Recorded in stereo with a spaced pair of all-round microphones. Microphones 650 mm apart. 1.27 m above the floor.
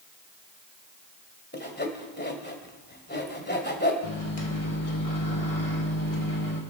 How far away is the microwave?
About 2 m.